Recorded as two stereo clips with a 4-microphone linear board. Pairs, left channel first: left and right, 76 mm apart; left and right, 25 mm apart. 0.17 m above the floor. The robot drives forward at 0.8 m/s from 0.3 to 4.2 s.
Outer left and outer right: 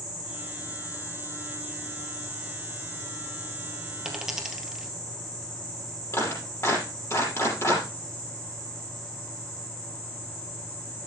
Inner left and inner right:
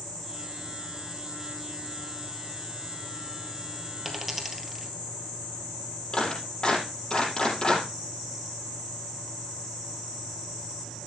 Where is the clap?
40° left (ahead or behind), 5 m.